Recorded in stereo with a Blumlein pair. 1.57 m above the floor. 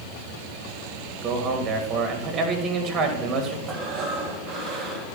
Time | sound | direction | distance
1.2 | a man speaking | 20° right | 3 m
3.7 | breathing | 20° right | 3 m